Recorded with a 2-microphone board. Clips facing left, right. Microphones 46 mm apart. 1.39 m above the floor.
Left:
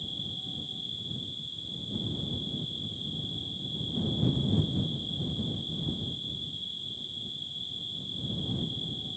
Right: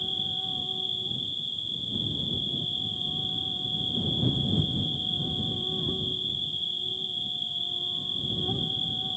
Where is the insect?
55° right (ahead or behind).